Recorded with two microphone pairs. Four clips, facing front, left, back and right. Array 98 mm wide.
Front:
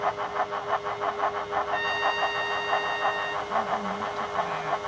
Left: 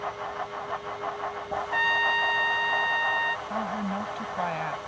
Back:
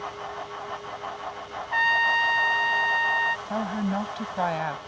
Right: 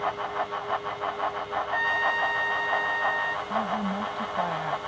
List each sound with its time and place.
1.7 s a trumpet: 170° left
3.5 s a woman speaking: straight behind